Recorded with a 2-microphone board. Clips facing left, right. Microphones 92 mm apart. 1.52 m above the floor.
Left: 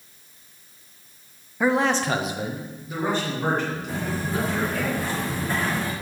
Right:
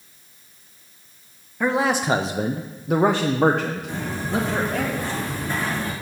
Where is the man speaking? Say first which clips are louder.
Even; 5° left (ahead or behind), 0.5 m; by 4.9 s 75° right (ahead or behind), 1.4 m.